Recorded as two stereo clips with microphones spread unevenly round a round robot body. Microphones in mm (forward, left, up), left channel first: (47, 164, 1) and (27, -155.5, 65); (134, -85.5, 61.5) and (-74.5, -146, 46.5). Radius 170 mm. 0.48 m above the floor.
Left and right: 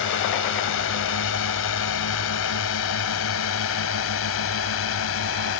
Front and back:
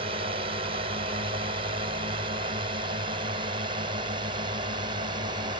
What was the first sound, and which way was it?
A drone, 130° left.